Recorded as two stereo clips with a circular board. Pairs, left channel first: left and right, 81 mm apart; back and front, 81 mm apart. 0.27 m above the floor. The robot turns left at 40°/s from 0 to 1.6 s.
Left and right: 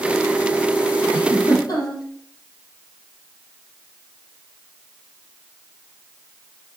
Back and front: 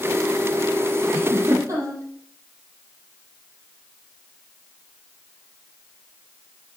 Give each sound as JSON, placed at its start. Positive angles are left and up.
{"t": 1.1, "sound": "a giggle", "azimuth_deg": 70, "distance_m": 6.0}